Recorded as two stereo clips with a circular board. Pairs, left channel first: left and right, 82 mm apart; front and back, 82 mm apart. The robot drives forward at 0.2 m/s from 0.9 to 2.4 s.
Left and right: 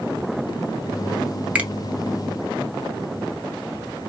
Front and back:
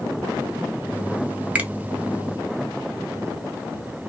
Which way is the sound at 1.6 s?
140° right.